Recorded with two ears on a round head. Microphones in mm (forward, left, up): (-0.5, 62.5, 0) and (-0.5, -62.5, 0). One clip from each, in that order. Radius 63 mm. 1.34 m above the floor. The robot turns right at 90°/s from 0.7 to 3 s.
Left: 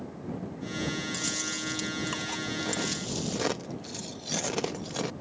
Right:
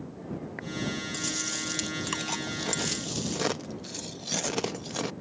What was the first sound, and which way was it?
Chewing, 175° left.